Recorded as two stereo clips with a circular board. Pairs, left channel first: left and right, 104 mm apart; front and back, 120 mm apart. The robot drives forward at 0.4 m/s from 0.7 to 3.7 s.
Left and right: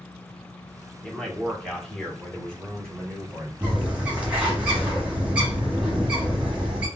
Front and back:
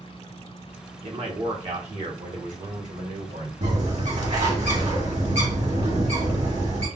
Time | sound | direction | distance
1.0 | a man speaking | 170° left | 0.9 m
3.6 | a bird | 165° right | 1.3 m